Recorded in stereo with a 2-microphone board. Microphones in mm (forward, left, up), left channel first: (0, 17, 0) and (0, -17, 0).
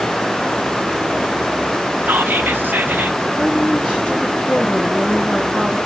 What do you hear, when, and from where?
2.1 s whispering: 70° right (ahead or behind), 0.8 m
3.4 s a woman speaking: 35° left (ahead or behind), 2.5 m